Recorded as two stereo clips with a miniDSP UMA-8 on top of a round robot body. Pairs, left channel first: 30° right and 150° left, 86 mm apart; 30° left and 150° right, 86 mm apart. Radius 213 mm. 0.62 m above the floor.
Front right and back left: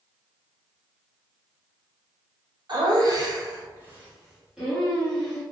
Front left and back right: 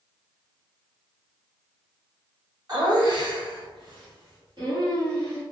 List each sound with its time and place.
2.7 s laughter: 175° left, 1.6 m; by 5.4 s 110° right, 2.5 m